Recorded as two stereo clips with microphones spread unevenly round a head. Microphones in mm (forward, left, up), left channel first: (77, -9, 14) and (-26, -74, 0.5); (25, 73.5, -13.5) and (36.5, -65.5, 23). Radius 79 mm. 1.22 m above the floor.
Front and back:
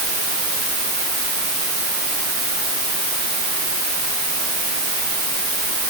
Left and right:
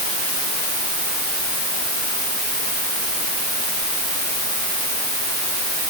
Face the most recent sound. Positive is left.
No sound to turn to.